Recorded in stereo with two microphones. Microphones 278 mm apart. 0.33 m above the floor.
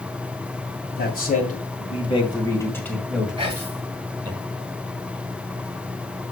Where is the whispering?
20° right (ahead or behind), 1.5 m.